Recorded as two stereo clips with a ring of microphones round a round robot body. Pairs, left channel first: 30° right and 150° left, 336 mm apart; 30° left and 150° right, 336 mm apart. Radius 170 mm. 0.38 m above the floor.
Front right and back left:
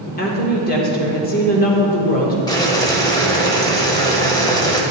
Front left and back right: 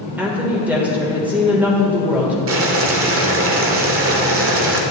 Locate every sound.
0.2 s a woman speaking: 70° right, 1.4 m
2.5 s boiling: 105° right, 1.0 m